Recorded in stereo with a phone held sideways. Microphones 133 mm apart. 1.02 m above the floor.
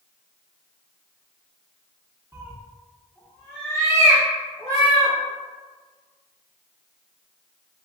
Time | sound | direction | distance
2.3 | a cat meowing | 20° right (ahead or behind) | 0.6 m